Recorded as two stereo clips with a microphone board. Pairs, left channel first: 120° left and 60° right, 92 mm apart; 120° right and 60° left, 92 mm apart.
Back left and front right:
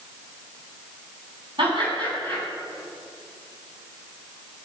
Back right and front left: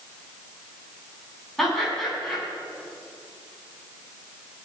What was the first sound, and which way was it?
Laughter, 35° right.